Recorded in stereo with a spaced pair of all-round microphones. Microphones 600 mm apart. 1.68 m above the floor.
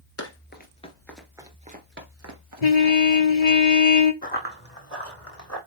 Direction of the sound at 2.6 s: 80° left.